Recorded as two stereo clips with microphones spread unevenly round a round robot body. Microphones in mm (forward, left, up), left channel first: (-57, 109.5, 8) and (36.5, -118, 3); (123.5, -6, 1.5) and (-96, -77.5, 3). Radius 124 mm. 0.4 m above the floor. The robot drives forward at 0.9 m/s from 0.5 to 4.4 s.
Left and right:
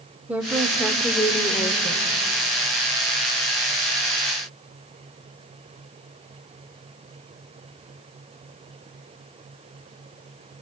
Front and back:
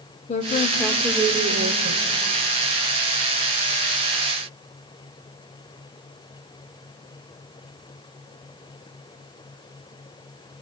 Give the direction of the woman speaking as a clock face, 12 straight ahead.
12 o'clock.